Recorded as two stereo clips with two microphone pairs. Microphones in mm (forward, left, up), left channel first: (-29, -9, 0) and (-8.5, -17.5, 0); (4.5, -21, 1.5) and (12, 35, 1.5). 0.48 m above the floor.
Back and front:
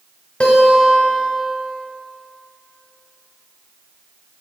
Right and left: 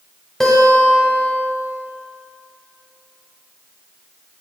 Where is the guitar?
Straight behind, 1.2 m.